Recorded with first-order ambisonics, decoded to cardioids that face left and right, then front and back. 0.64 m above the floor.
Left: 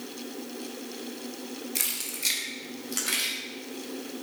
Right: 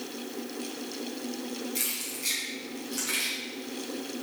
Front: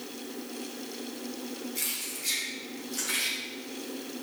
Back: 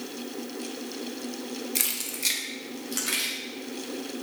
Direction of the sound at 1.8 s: 160° left.